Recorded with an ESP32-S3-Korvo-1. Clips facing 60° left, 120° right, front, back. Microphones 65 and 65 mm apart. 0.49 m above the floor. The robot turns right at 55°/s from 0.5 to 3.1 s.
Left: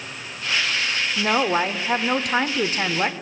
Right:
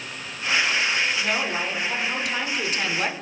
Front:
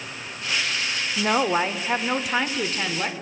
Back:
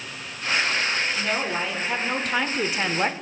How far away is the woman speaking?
About 1.0 m.